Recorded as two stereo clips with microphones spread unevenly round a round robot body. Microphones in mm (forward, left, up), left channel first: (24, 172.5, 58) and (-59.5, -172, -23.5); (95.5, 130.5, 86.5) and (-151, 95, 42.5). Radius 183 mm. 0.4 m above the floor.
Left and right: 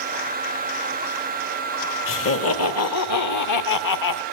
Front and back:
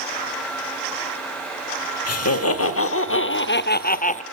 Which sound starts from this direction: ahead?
Laughter, at 2.1 s.